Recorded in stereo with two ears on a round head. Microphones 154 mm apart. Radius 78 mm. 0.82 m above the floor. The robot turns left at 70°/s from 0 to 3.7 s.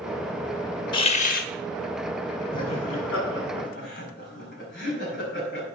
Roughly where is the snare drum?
No snare drum in this recording.